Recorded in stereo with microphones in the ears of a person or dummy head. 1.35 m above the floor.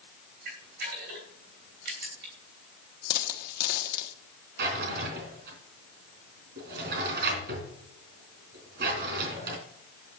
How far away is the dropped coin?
About 1.3 m.